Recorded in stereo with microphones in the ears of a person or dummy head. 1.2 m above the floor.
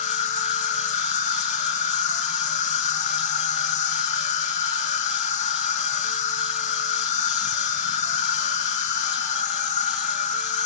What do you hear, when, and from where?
0.0 s an insect: 40° left (ahead or behind), 1.3 m